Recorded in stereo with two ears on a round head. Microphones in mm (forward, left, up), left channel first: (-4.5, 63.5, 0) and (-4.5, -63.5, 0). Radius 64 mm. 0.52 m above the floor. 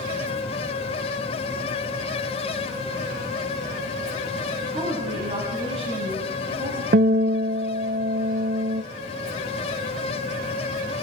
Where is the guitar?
65° right (ahead or behind), 0.7 m.